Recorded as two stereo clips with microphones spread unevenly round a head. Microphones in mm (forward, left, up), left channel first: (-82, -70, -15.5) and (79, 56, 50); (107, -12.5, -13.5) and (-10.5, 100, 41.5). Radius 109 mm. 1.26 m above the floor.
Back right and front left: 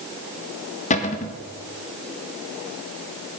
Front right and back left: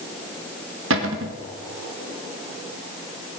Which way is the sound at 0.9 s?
165° left.